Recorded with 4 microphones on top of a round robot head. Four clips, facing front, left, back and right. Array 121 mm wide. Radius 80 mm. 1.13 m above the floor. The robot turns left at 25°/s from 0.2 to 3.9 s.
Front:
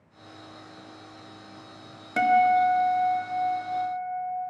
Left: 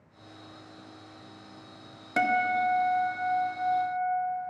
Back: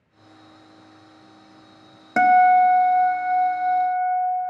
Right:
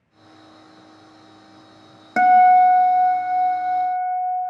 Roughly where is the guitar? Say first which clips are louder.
Right 14 dB, back 6 dB; behind right.